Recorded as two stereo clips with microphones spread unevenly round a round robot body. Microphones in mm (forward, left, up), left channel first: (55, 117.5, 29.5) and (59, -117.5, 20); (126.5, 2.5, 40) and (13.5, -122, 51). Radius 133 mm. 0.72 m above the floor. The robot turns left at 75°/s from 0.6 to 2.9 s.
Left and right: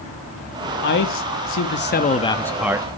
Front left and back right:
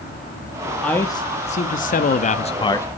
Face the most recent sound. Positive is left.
turn(degrees=-25)